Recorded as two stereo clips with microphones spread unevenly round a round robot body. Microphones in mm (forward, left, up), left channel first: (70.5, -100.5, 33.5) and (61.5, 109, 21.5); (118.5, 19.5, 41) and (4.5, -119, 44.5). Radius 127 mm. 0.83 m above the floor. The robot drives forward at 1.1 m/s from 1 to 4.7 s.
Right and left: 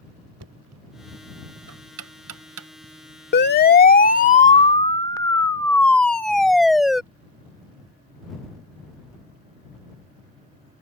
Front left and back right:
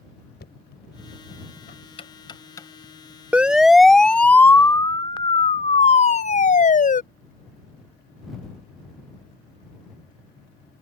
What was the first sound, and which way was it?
Knocking, 100° left.